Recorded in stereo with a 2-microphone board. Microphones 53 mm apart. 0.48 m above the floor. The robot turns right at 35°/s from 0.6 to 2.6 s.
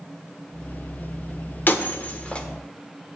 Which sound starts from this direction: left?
Breaking glass, at 1.7 s.